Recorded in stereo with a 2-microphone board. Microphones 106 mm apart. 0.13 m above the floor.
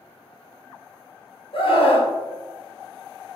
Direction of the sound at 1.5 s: 60° left (ahead or behind).